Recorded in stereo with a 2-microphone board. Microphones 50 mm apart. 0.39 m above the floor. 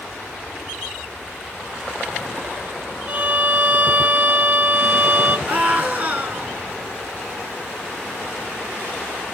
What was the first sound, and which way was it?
A violin, 30° right (ahead or behind).